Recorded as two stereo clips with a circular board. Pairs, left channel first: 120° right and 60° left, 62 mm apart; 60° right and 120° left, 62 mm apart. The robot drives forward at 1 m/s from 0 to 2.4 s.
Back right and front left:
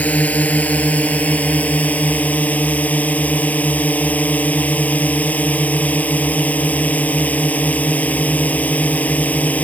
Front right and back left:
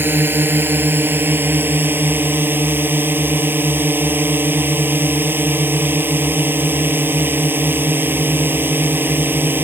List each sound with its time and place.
0.0 s a drone: 175° left